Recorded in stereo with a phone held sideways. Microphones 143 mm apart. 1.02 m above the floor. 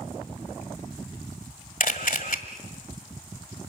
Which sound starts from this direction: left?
A camera shutter, at 1.8 s.